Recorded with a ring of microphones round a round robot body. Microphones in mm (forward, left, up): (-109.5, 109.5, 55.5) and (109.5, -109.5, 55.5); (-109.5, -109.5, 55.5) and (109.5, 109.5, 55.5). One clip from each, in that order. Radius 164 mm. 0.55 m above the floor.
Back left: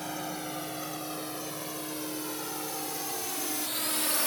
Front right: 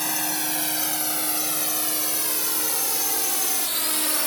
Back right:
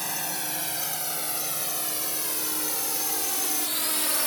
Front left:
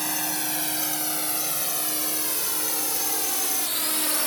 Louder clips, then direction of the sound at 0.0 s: Front right 8 dB, front left 3 dB; 40° right.